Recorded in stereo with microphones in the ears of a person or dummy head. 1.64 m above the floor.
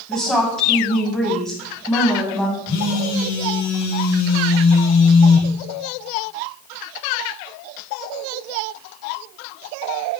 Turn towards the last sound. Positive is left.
turn(degrees=85)